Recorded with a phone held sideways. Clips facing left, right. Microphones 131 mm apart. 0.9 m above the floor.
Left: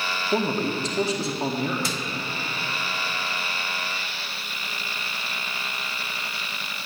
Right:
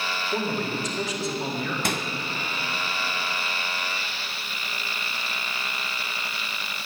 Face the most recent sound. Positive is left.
turn(degrees=-60)  # may be behind; listen again after turning